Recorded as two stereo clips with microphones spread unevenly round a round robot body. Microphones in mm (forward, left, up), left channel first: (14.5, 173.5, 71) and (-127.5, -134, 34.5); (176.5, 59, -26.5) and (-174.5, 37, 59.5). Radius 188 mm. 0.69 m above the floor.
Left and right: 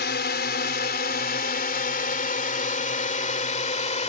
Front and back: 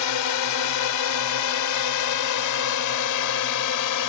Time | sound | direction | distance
0.0 | a drone | 5° left | ?